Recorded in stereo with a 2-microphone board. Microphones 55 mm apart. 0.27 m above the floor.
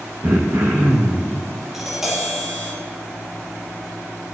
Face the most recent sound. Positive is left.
turn(degrees=-5)  # may be behind; listen again after turning